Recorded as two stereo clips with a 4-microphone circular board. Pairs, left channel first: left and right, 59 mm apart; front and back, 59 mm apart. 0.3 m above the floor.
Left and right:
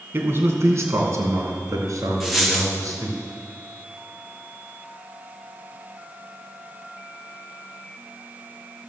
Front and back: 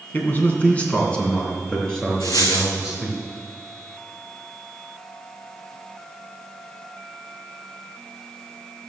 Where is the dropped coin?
Straight ahead, 1.8 m.